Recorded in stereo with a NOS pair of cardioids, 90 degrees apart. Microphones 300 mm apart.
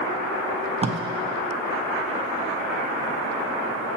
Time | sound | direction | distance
0.8 | tape being pulled | 25° right | 0.6 m